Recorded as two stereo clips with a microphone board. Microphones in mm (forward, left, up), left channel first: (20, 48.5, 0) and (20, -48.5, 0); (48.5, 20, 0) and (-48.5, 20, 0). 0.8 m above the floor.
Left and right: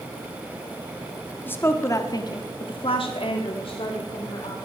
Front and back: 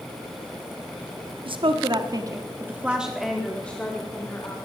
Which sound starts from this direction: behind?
A woman speaking, at 1.4 s.